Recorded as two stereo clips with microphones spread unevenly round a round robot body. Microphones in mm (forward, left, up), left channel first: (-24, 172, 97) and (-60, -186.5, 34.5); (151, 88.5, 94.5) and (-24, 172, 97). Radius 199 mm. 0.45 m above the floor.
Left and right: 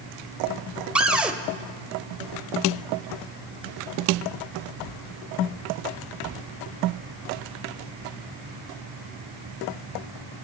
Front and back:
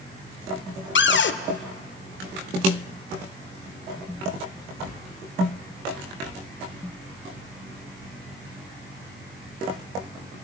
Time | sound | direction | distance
0.9 | a cupboard door | 15° right | 1.2 m